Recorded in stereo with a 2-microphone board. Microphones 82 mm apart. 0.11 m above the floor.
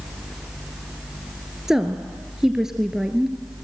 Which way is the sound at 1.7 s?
5° right (ahead or behind).